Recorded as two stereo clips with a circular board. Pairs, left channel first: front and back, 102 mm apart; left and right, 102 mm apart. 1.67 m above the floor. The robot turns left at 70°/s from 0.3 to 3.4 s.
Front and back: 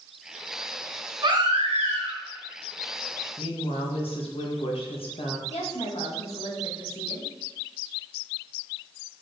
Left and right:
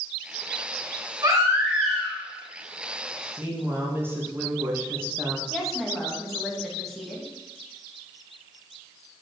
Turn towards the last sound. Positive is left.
turn(degrees=0)